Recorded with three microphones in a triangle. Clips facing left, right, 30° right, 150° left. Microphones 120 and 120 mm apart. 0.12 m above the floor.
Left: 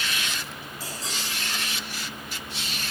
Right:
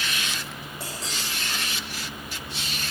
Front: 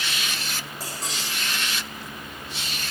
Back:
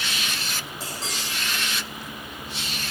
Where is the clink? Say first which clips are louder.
Even, even; 115° right, 4 m.